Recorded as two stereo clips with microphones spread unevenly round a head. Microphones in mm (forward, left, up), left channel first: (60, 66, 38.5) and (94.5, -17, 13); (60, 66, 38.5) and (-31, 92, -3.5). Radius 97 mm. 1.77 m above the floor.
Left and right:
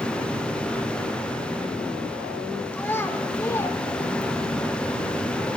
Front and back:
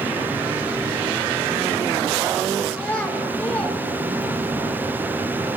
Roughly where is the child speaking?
Ahead left.